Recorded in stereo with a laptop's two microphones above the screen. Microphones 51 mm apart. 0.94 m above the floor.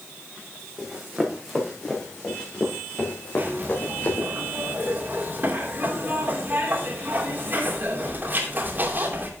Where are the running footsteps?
5° right (ahead or behind), 4 m; by 4.3 s 40° left (ahead or behind), 4.5 m.